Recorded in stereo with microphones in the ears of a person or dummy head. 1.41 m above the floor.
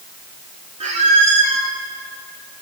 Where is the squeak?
35° right (ahead or behind), 1.1 m.